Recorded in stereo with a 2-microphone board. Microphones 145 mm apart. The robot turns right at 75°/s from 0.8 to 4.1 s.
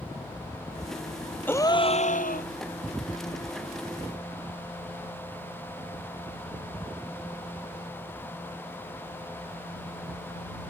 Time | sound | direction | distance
1.5 | a gasp | 10° left | ?